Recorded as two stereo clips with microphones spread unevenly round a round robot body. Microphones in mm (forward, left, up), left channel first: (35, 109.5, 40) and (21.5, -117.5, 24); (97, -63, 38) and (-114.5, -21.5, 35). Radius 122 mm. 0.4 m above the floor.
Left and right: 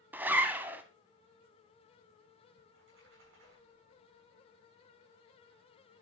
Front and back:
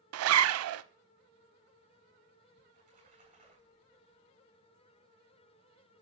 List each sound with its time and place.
0.1 s a zipper: 175° right, 0.6 m
2.6 s a splash: 135° right, 8 m